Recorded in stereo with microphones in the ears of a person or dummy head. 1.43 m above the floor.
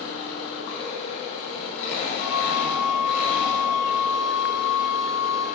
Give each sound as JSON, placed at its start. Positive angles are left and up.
{"t": 0.0, "sound": "an engine running", "side_deg": 65, "distance_m": 3.0}
{"t": 2.2, "sound": "a flute", "side_deg": 60, "distance_m": 1.5}